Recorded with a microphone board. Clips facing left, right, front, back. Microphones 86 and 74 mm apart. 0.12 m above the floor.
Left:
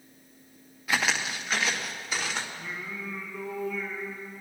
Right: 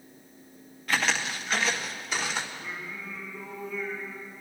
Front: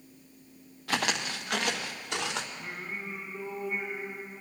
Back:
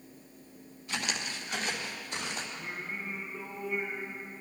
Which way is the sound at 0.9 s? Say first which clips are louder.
Even, front 6 dB; 5° left.